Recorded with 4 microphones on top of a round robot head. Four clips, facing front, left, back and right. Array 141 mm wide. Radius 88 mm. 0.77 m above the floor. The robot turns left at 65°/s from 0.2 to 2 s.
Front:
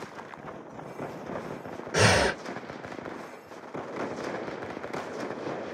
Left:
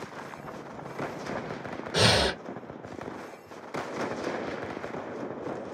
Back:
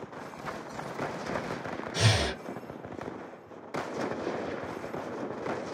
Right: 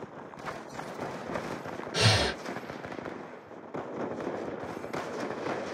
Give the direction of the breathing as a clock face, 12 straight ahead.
11 o'clock.